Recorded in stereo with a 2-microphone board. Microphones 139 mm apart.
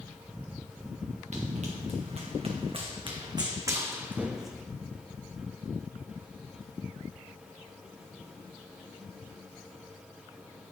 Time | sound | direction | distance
1.3 | running footsteps | 55° right (ahead or behind) | 2 m